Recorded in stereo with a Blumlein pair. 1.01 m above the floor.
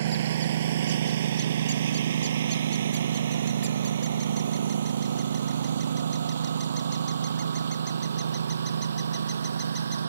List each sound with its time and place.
0.0 s a lawn mower: 60° right; by 10.1 s 70° right